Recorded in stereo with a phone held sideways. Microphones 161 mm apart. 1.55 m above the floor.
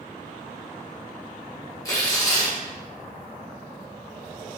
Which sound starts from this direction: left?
Tearing paper, at 1.9 s.